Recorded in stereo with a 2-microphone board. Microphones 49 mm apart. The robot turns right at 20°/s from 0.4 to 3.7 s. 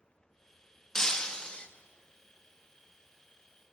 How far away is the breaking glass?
About 0.7 m.